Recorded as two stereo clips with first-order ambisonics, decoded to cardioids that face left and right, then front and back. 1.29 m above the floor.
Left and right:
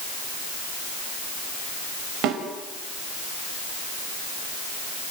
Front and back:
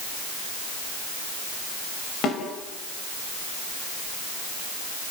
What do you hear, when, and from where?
2.2 s a snare drum: 55° right, 5 m